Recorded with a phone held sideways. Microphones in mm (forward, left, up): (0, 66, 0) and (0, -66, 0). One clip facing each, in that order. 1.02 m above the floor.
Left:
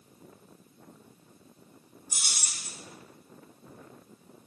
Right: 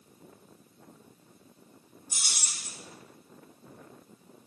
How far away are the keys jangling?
About 1.4 m.